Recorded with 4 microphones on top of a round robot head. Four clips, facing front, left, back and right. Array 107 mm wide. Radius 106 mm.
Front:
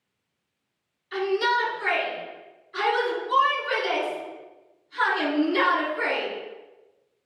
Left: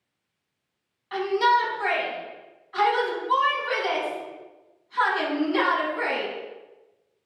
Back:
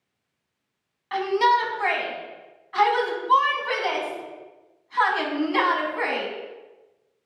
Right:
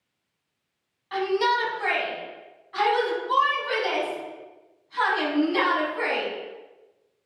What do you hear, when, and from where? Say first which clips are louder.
1.1 s a shout: left 2 dB, back 4 dB; straight behind, 4 m